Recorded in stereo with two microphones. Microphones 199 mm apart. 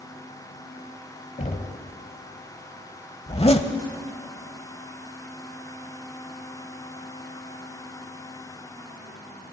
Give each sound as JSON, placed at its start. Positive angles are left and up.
{"t": 1.4, "sound": "knocking", "side_deg": 40, "distance_m": 1.0}
{"t": 3.3, "sound": "a zipper", "side_deg": 30, "distance_m": 0.7}